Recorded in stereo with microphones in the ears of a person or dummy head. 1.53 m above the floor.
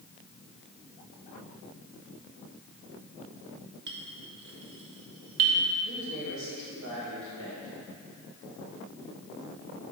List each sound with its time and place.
3.9 s a clink: 60° right (ahead or behind), 1.4 m
5.8 s a man speaking: 60° right (ahead or behind), 3 m